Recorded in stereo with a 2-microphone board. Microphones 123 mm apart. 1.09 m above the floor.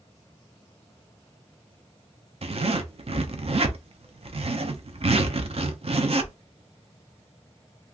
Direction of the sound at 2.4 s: 55° right (ahead or behind).